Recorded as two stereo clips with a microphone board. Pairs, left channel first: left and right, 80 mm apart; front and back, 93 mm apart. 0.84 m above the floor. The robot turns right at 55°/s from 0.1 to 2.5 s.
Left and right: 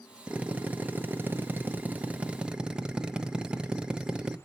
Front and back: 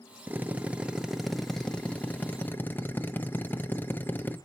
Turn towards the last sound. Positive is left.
turn(degrees=-25)